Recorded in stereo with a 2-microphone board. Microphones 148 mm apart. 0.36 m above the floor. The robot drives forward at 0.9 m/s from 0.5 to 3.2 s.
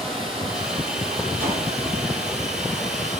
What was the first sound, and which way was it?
Running water, 40° right (ahead or behind).